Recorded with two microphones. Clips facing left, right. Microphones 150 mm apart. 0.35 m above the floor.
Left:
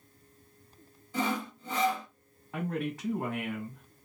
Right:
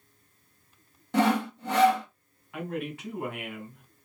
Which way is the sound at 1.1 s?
75° right (ahead or behind).